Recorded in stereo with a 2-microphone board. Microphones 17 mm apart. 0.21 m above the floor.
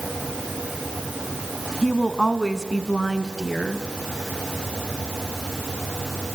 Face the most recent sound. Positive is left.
turn(degrees=35)  # may be behind; listen again after turning